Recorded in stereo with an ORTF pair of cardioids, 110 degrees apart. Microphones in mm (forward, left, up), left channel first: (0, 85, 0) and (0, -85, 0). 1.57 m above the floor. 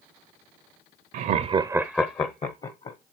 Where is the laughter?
60° right, 0.6 m; by 3.0 s 45° left, 1.1 m.